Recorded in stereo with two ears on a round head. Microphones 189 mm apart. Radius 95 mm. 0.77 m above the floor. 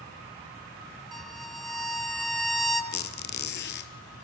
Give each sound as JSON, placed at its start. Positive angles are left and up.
{"t": 1.1, "sound": "a violin", "side_deg": 0, "distance_m": 2.0}
{"t": 2.9, "sound": "a squeak", "side_deg": 60, "distance_m": 1.3}